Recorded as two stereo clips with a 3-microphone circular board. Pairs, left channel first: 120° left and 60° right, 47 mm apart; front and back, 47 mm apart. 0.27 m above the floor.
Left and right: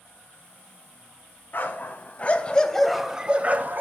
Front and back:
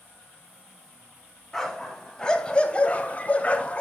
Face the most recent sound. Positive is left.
turn(degrees=-55)